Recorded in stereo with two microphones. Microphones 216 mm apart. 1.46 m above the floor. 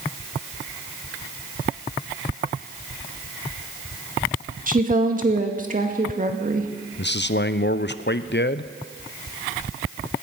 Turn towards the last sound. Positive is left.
turn(degrees=50)  # may be behind; listen again after turning